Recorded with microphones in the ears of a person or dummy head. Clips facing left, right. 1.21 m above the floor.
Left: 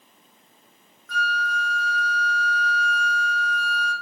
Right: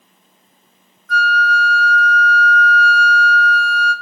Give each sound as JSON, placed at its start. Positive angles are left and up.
{"t": 1.1, "sound": "a flute", "side_deg": -55, "distance_m": 0.7}